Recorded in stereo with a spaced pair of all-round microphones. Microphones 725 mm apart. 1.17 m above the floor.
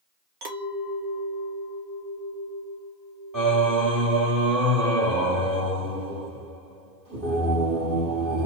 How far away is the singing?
About 1.2 m.